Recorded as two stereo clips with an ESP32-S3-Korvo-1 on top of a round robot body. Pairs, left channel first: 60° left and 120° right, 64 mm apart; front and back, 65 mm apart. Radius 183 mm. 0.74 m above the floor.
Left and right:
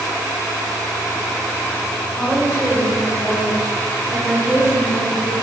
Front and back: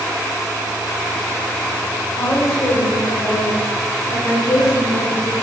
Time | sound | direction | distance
2.1 | a woman speaking | 25° right | 3.5 m